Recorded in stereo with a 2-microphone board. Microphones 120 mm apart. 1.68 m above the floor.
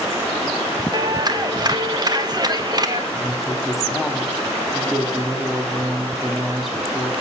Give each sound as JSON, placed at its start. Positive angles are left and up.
{"t": 0.9, "sound": "a clap", "side_deg": -40, "distance_m": 1.5}
{"t": 3.1, "sound": "a woman speaking", "side_deg": -5, "distance_m": 3.5}